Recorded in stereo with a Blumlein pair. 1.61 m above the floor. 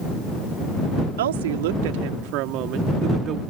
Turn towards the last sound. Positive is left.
turn(degrees=-25)